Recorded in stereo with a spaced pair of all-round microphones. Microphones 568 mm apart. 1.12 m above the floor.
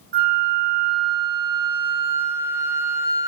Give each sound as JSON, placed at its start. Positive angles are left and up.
{"t": 0.1, "sound": "a flute", "side_deg": -45, "distance_m": 0.5}